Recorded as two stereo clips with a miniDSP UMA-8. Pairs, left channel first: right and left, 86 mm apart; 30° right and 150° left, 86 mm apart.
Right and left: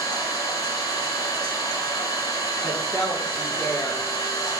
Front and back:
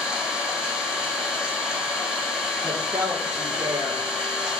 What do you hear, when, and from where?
0.0 s an engine running: 130° right, 5 m
2.6 s a woman speaking: 160° right, 5 m